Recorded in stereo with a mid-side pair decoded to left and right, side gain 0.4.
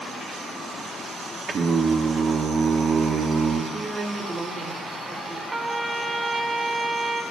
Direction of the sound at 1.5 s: 55° right.